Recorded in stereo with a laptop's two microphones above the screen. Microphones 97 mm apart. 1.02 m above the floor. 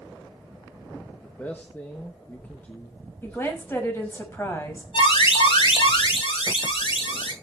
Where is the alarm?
60° left (ahead or behind), 6 m.